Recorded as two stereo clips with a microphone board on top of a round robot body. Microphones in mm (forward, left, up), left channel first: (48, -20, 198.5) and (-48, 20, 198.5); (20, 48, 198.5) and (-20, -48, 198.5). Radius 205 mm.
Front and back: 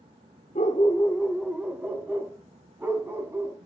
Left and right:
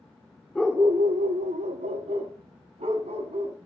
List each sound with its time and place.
0.6 s a dog barking: 10° right, 0.8 m; by 3.6 s 135° right, 3.5 m